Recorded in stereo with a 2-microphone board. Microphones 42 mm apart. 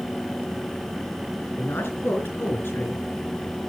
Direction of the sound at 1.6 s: 70° left (ahead or behind).